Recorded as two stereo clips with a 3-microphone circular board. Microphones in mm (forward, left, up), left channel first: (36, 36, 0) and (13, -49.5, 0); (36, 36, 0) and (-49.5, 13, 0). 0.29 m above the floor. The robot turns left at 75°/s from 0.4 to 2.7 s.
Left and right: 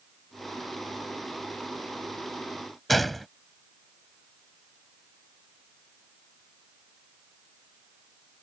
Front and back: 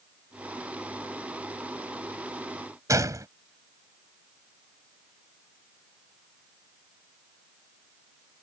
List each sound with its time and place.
2.9 s a gunshot: 165° left